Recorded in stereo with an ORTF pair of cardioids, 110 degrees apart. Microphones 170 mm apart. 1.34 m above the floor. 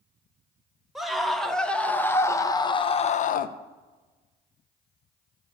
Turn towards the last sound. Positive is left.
turn(degrees=65)